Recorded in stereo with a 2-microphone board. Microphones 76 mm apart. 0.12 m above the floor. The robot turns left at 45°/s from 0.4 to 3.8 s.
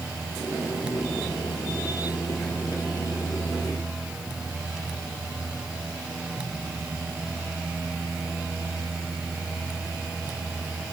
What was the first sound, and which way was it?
Only background noise.